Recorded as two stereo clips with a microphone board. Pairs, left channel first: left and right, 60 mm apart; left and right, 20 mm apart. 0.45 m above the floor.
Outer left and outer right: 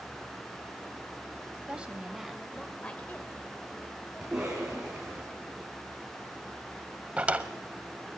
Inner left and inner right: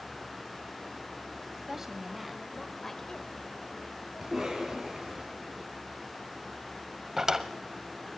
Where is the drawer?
20° right (ahead or behind), 0.8 m.